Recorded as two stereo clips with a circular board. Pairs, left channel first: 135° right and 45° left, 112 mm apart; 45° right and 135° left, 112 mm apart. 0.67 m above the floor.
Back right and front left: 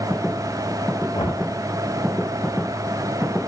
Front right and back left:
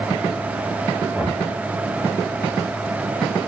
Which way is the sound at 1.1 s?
150° right.